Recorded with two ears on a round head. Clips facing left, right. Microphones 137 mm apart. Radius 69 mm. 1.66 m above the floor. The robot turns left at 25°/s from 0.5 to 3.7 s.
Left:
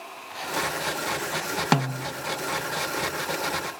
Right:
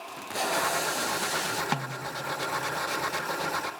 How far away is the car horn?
I don't hear a car horn.